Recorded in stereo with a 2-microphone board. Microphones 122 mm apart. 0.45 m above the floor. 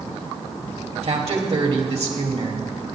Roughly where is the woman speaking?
Right.